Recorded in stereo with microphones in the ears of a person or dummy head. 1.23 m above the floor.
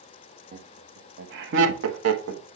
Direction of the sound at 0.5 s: 35° right (ahead or behind).